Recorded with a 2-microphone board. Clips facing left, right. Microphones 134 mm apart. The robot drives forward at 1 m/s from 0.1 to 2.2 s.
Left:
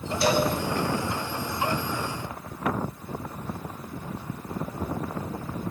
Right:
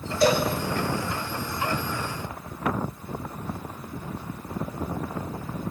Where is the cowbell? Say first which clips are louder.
Right 2 dB; 45° right (ahead or behind), 2.5 m; by 0.5 s 50° right (ahead or behind), 2 m.